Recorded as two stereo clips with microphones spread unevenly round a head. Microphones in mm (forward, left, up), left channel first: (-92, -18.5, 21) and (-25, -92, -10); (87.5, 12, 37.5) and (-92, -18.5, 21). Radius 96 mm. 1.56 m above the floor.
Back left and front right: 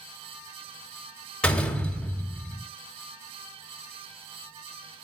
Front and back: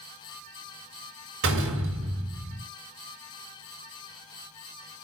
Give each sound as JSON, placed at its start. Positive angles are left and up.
{"t": 1.4, "sound": "a door slam", "azimuth_deg": -150, "distance_m": 4.5}